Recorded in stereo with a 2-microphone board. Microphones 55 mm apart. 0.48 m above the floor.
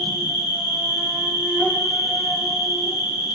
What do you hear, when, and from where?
0.0 s an insect: 20° right (ahead or behind), 3 m